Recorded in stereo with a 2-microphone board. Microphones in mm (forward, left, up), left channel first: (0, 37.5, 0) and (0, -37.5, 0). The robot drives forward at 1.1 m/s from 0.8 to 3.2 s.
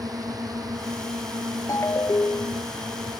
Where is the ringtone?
45° left (ahead or behind); by 2.7 s 35° left (ahead or behind).